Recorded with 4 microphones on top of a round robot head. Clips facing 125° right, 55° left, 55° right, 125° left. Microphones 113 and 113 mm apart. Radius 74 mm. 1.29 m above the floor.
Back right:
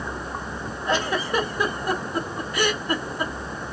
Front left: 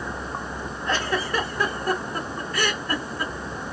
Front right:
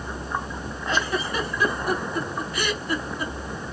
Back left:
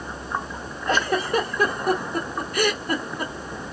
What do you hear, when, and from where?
0.9 s a giggle: 160° left, 1.2 m